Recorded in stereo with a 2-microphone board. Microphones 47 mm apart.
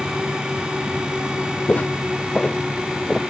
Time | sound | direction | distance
1.7 | footsteps | 40° left (ahead or behind) | ?